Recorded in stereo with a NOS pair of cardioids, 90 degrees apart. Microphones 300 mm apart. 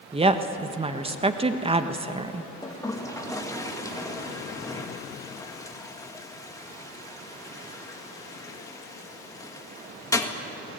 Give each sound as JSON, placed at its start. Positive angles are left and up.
{"t": 0.1, "sound": "a woman speaking", "azimuth_deg": -20, "distance_m": 1.3}
{"t": 2.6, "sound": "a toilet flushing", "azimuth_deg": 10, "distance_m": 2.0}